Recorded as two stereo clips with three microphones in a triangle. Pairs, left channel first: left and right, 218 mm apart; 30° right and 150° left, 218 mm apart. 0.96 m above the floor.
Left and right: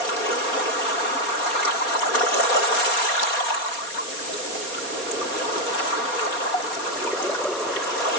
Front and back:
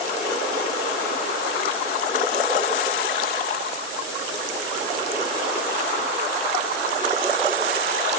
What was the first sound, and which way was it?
Only background noise.